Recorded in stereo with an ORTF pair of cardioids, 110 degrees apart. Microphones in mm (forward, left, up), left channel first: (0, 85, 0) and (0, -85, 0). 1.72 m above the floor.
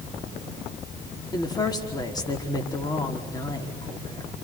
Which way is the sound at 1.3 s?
25° left.